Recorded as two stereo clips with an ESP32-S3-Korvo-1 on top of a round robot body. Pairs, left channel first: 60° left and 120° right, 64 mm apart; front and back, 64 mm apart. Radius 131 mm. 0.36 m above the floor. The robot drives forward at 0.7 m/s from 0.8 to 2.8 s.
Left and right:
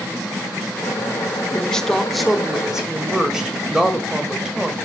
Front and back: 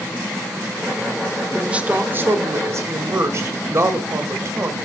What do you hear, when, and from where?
1.5 s a woman speaking: 120° left, 1.1 m; by 4.8 s 160° left, 1.5 m